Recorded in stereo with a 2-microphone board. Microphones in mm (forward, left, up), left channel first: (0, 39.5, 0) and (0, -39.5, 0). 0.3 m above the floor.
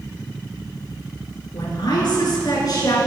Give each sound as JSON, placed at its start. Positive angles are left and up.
{"t": 1.5, "sound": "a woman speaking", "side_deg": 65, "distance_m": 4.0}